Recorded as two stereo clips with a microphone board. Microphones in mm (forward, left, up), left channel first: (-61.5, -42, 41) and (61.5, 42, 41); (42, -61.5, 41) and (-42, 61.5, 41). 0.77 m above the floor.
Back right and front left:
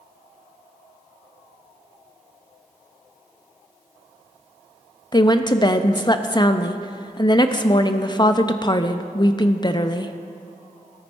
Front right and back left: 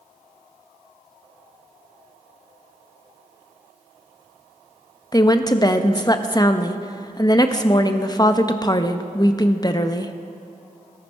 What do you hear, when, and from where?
5.1 s a woman speaking: 105° right, 0.5 m